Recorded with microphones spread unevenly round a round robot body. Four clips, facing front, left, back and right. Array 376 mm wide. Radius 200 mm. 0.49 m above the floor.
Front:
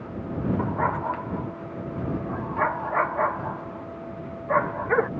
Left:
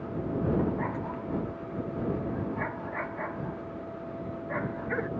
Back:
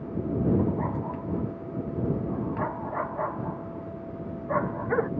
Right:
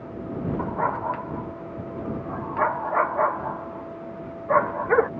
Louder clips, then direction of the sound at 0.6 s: Right 5 dB, front 2 dB; 40° right.